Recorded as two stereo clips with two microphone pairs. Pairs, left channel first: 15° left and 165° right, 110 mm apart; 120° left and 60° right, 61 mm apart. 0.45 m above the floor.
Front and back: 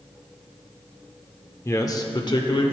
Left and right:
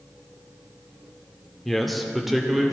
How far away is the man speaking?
About 0.7 m.